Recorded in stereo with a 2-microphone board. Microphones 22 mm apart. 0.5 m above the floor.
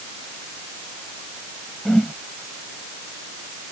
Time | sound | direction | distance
1.9 | a whoosh | 30° left (ahead or behind) | ?